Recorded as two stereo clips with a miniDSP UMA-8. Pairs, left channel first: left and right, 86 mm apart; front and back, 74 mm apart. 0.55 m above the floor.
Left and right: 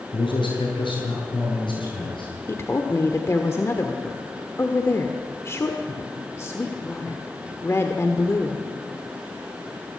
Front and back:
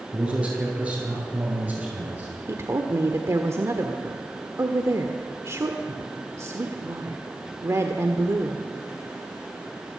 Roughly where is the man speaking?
Left.